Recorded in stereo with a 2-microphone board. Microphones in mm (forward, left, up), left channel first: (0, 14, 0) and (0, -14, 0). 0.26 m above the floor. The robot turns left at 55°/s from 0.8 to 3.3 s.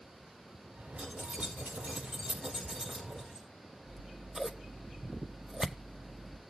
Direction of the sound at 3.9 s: 20° right (ahead or behind).